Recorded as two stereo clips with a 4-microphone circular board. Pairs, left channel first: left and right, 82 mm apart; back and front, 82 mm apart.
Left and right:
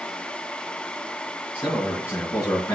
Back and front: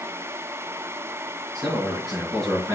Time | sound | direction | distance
1.6 | a man speaking | 30° left | 3.5 m